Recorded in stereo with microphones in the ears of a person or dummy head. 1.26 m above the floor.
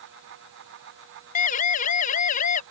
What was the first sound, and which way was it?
A siren, 45° left (ahead or behind).